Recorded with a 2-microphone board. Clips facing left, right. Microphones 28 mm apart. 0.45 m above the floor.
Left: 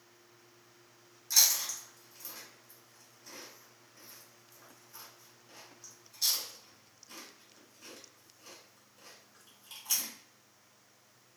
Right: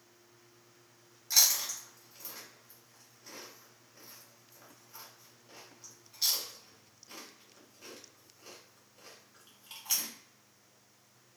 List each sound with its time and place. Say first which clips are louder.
1.3 s chewing: even; 20° right (ahead or behind), 1.1 m